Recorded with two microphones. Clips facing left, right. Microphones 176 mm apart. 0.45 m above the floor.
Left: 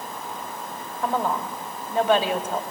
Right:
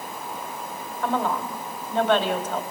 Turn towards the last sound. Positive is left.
turn(degrees=10)  # may be behind; listen again after turning